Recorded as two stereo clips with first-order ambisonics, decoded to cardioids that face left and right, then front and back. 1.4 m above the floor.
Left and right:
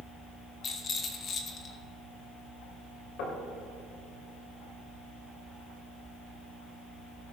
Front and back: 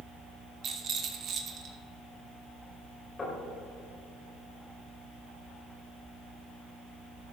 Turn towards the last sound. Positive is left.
turn(degrees=70)